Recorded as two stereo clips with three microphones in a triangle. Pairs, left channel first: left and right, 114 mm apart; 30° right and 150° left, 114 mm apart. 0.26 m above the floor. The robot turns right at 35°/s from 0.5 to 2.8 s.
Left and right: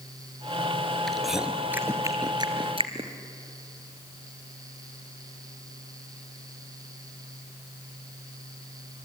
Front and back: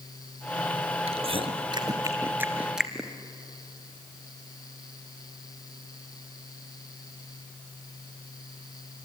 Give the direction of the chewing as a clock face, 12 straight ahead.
6 o'clock.